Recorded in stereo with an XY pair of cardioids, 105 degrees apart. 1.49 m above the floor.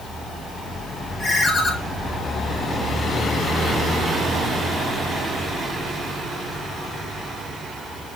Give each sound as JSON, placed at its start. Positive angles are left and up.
{"t": 1.2, "sound": "a ringtone", "azimuth_deg": 25, "distance_m": 1.5}